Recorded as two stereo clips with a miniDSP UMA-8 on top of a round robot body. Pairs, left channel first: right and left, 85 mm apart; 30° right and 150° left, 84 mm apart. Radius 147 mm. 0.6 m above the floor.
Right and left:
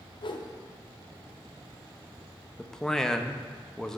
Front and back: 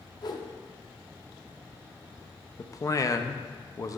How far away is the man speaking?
About 0.7 m.